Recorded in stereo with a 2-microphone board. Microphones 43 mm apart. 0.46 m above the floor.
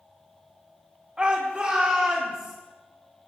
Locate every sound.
1.2 s a shout: 25° right (ahead or behind), 0.8 m